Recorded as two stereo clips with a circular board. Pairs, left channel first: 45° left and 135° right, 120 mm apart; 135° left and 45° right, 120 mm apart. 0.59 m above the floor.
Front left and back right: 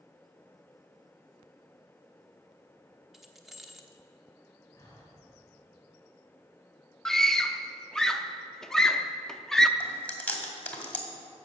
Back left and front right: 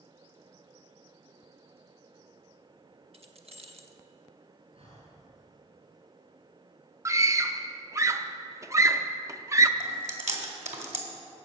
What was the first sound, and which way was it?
Keys jangling, 50° right.